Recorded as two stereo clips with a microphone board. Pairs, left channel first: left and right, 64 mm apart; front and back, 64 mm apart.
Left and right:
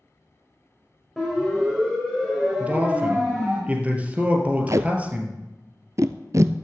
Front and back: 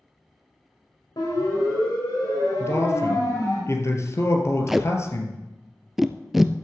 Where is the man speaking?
25° right, 2.5 m.